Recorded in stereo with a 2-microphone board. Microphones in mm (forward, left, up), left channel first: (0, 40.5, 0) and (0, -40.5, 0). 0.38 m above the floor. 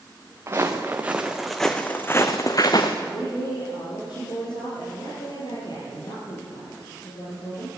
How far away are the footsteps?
About 2.5 m.